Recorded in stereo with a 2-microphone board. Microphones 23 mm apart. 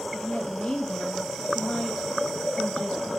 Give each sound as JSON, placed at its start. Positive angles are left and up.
{"t": 0.1, "sound": "a woman speaking", "side_deg": 60, "distance_m": 7.5}